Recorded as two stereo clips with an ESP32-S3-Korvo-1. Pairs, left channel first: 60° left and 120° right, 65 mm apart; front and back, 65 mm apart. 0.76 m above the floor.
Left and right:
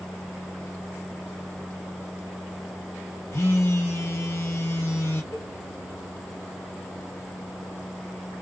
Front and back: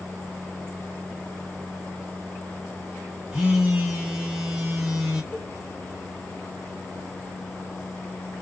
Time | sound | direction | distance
3.3 | a phone buzzing | 100° left | 1.2 m
5.3 | a cowbell | 65° left | 1.3 m